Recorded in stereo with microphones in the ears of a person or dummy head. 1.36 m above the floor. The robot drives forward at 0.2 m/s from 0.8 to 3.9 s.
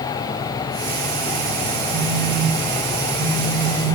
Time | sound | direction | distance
1.9 | a phone buzzing | 70° right (ahead or behind) | 0.9 m